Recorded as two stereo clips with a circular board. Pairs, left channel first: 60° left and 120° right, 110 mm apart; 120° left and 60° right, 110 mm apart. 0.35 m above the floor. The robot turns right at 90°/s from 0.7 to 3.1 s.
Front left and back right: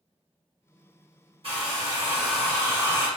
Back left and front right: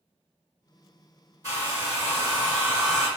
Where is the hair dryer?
110° right, 1.7 m; by 3.1 s 35° left, 1.7 m.